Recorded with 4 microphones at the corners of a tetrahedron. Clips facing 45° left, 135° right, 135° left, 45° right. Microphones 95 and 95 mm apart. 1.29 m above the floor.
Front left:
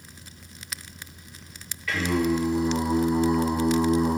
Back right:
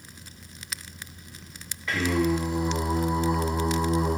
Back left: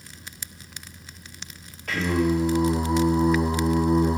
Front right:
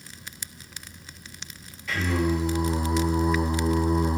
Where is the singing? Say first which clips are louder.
Even, back left 3 dB; 160° left, 0.9 m.